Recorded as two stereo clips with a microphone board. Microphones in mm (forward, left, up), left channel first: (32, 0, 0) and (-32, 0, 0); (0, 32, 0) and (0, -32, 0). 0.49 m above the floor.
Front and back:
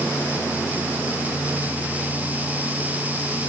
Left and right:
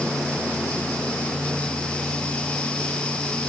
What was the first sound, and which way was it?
Only background noise.